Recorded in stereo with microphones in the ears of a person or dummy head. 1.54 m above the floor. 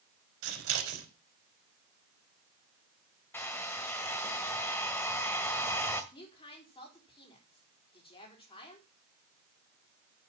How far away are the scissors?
About 3.5 m.